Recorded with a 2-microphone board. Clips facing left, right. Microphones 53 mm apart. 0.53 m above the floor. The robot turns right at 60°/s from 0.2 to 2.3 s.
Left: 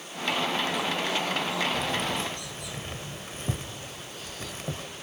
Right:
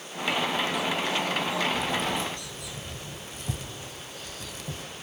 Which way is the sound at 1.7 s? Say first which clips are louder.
Right 1 dB; 65° left (ahead or behind).